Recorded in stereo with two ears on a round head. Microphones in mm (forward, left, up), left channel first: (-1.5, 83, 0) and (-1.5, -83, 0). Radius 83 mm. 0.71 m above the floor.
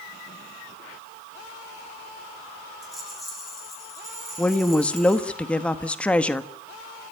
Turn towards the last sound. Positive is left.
turn(degrees=5)  # may be behind; listen again after turning